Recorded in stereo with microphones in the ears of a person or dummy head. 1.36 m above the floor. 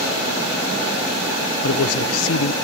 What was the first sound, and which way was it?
A man speaking, 65° left (ahead or behind).